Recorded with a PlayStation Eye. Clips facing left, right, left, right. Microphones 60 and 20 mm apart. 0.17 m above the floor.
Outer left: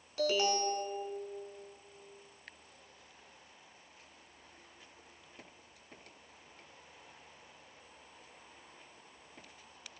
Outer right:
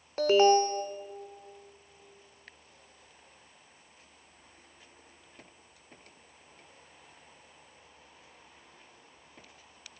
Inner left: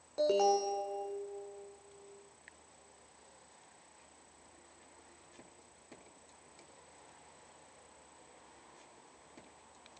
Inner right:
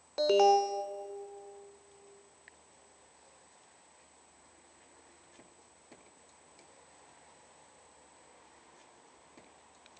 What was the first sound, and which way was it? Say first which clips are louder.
An alarm: outer right 9 dB, inner right 5 dB; 40° right (ahead or behind).